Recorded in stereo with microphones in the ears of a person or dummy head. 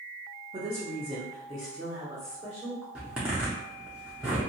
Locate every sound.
0.5 s a woman speaking: 15° right (ahead or behind), 0.7 m; by 2.9 s 10° right (ahead or behind), 1.4 m
3.0 s a zipper: 5° right (ahead or behind), 0.6 m